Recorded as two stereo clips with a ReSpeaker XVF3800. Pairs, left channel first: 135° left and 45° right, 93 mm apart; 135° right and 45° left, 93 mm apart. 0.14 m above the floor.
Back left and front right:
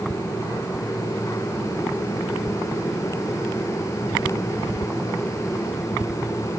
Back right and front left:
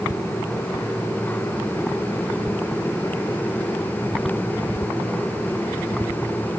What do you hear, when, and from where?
Only background noise.